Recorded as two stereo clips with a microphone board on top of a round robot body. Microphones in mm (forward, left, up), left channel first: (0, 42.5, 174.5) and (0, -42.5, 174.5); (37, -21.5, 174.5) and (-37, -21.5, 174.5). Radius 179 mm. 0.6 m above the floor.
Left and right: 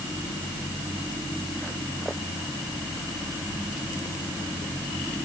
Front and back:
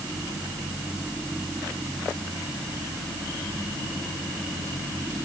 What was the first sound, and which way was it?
Only background noise.